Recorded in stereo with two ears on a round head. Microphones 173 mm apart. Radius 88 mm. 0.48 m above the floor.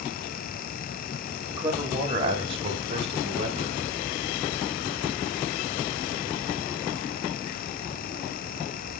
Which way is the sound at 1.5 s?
20° right (ahead or behind).